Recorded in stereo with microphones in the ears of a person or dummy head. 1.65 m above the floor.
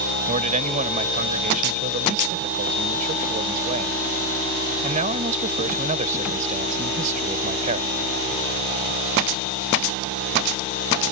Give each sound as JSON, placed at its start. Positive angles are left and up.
{"t": 0.3, "sound": "a man speaking", "side_deg": -40}